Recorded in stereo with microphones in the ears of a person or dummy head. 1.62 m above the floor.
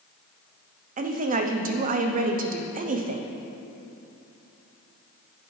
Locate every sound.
1.0 s a woman speaking: 45° right (ahead or behind), 0.6 m